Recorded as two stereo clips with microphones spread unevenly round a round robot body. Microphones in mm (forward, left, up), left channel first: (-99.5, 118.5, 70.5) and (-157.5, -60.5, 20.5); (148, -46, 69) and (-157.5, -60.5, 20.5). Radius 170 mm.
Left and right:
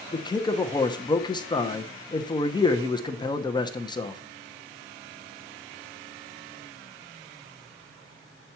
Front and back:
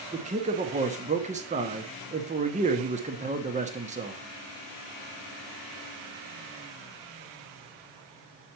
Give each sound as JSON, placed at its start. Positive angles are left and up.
{"t": 0.1, "sound": "a man speaking", "azimuth_deg": 150, "distance_m": 1.1}